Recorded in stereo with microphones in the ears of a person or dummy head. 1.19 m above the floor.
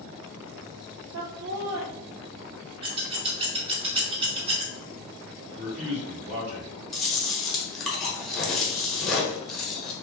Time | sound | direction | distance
1.1 | laughter | 60° right (ahead or behind) | 0.7 m
2.8 | scissors | 35° right (ahead or behind) | 0.8 m
5.5 | a man speaking | 65° right (ahead or behind) | 1.9 m
6.9 | chewing | centre (ahead or behind) | 0.9 m